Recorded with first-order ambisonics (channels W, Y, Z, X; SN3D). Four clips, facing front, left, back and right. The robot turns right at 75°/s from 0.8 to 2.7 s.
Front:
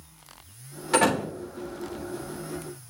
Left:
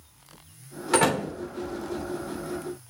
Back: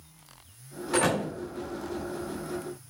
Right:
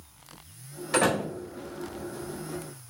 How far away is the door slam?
About 3.5 m.